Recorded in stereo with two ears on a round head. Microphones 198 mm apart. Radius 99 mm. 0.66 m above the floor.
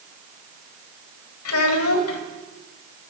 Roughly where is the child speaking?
Left.